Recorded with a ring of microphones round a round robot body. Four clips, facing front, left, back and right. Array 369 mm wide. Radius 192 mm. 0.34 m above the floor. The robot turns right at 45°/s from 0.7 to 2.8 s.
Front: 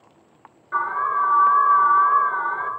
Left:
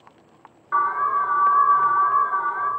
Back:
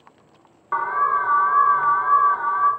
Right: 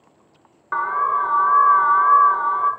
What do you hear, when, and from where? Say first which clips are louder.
0.7 s an alarm: right 1 dB, back 2 dB; 145° right, 1.4 m; by 2.7 s 55° right, 1.4 m